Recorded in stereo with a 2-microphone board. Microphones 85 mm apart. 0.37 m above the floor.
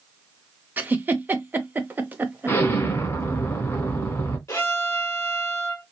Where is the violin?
35° left (ahead or behind), 1.8 m.